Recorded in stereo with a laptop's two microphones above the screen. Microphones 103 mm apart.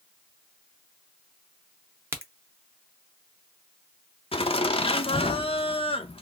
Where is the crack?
20° right (ahead or behind), 0.6 m.